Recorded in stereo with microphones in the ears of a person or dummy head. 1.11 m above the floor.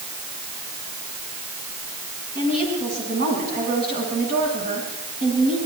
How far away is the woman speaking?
About 9 m.